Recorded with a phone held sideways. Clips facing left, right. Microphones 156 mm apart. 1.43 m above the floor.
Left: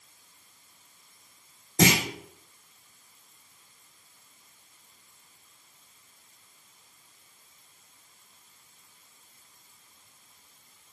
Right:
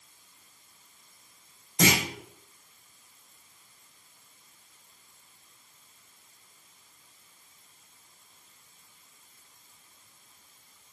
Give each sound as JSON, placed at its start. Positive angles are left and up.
{"t": 1.8, "sound": "a clunk", "side_deg": 70, "distance_m": 3.0}